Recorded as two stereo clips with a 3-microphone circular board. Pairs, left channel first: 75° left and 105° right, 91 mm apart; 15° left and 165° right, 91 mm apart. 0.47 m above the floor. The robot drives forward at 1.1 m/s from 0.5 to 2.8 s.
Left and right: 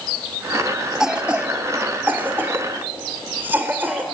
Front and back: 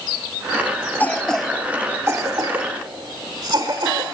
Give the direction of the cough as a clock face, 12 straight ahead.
1 o'clock.